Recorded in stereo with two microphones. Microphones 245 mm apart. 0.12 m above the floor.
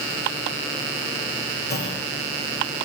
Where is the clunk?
40° left (ahead or behind), 4.5 m.